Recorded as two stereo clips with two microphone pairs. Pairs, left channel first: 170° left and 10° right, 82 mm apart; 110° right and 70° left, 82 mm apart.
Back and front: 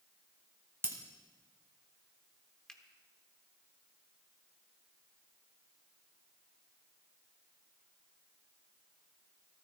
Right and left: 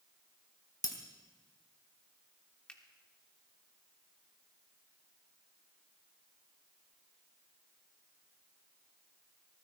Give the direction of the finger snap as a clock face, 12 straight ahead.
5 o'clock.